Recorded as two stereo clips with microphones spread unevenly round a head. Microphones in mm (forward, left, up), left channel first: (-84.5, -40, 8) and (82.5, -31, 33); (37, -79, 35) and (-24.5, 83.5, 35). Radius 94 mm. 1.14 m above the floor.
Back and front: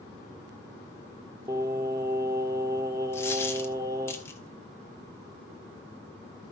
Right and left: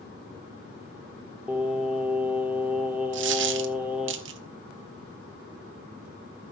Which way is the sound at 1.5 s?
35° left.